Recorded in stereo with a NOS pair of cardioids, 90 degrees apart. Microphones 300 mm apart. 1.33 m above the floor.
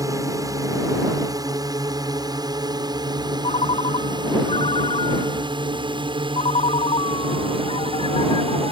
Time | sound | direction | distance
0.0 | a drone | 10° right | ?
3.4 | a ringtone | 20° left | ?